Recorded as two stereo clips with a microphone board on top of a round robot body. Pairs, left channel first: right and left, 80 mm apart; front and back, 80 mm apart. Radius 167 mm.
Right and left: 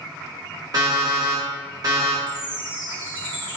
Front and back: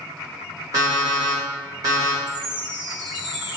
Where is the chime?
90° left, 1.0 m.